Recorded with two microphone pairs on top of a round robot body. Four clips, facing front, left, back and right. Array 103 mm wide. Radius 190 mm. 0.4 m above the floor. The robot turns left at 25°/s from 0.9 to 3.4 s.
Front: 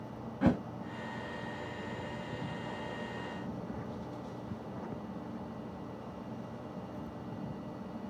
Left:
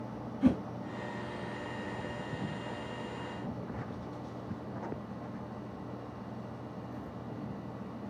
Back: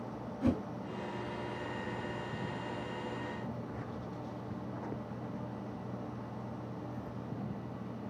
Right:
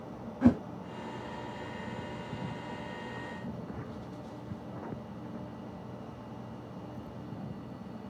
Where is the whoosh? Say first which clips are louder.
Right 3 dB, front 3 dB; 45° right, 1.0 m.